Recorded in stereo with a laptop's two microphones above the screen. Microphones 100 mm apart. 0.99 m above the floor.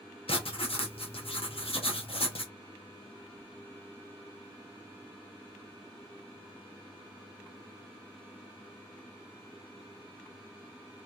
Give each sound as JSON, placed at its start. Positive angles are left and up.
{"t": 0.3, "sound": "writing", "side_deg": 70, "distance_m": 0.7}